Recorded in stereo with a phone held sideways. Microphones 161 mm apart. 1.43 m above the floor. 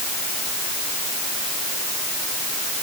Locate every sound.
Only background noise.